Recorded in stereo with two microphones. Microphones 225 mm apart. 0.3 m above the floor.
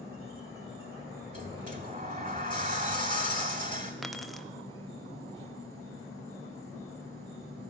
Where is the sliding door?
35° right (ahead or behind), 1.2 m.